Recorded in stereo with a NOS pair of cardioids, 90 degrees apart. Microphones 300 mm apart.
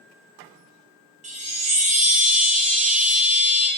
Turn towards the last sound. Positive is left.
turn(degrees=-25)